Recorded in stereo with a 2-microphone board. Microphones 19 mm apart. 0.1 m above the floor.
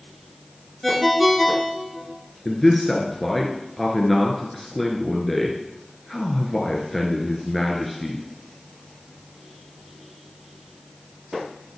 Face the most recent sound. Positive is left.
turn(degrees=10)  # may be behind; listen again after turning